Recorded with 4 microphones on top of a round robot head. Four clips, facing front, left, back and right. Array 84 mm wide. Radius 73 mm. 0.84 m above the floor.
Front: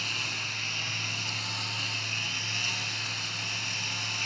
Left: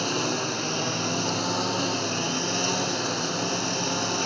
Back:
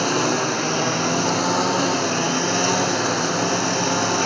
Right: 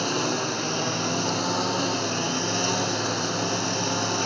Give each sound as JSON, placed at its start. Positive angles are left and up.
{"t": 0.0, "sound": "a lawn mower", "azimuth_deg": 180}